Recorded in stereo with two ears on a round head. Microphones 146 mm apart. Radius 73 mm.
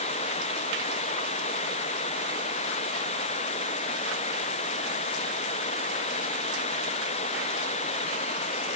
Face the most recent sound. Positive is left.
turn(degrees=40)  # may be behind; listen again after turning